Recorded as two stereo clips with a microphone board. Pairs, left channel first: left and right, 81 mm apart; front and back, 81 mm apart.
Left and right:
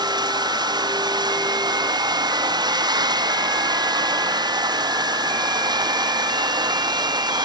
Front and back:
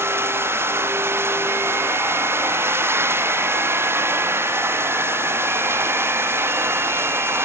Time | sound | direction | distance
0.0 | running water | 120° right | ?